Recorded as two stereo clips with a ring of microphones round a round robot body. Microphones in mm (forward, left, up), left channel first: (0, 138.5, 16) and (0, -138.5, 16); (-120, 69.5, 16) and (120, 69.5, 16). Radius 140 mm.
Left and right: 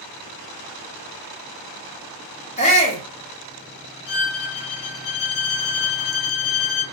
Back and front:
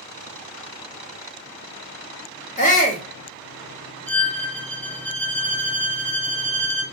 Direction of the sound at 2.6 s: 140° left.